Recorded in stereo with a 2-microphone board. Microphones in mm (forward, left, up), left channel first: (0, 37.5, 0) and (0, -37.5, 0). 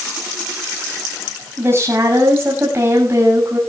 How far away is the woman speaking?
About 6 m.